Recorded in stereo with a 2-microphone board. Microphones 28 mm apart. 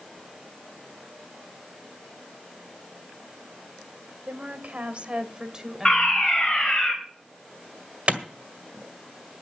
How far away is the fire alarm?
About 3.5 m.